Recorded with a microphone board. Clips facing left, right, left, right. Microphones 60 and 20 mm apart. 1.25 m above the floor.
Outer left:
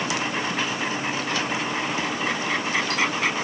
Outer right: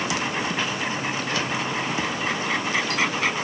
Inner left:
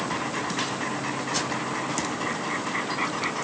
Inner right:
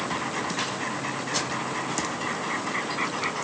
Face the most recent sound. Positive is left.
No sound to turn to.